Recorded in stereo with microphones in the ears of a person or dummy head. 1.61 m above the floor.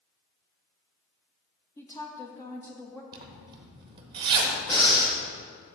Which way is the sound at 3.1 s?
25° right (ahead or behind).